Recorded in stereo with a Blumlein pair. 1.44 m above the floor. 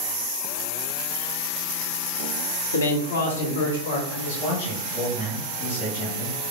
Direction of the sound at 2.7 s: 70° left.